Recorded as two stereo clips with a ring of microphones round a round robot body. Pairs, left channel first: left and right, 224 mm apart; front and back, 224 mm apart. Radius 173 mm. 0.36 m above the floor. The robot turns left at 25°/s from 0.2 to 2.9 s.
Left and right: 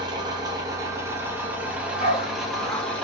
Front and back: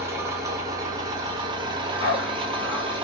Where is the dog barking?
40° left, 1.3 m; by 2.9 s 5° left, 1.3 m.